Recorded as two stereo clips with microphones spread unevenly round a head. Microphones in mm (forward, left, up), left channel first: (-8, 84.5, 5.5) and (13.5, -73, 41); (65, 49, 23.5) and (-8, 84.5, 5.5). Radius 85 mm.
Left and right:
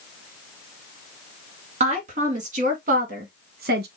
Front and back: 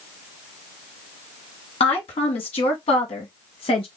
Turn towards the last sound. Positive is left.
turn(degrees=-50)